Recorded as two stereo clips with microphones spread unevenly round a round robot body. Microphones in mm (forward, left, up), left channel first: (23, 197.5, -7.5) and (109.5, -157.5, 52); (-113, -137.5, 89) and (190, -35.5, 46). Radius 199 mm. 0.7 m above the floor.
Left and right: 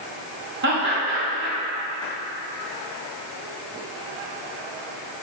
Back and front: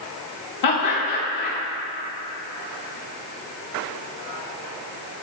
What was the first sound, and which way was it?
Laughter, 140° right.